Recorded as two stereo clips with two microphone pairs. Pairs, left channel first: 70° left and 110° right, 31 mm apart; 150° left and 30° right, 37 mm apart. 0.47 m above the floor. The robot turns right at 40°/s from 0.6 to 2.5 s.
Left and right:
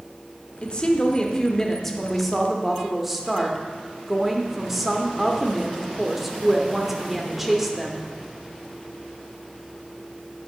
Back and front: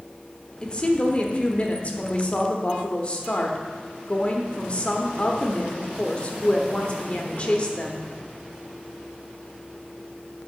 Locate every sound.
0.6 s a woman speaking: 100° left, 1.0 m; by 8.1 s 175° left, 1.0 m